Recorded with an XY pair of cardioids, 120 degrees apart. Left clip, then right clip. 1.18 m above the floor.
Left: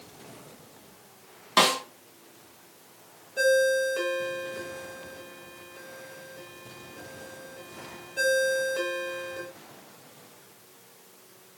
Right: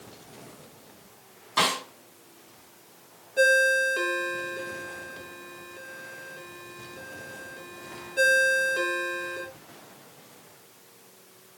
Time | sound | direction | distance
1.6 | a snare drum | 55° left | 1.5 m
3.4 | a ringtone | 10° right | 1.1 m